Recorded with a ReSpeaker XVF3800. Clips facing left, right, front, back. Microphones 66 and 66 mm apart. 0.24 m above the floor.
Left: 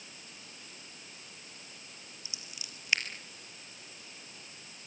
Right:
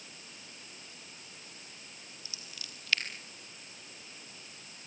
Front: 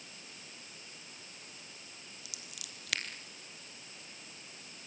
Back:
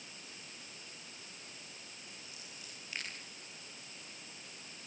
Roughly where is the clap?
I don't hear a clap.